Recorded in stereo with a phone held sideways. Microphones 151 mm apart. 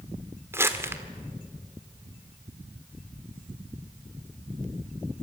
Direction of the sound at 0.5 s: 15° right (ahead or behind).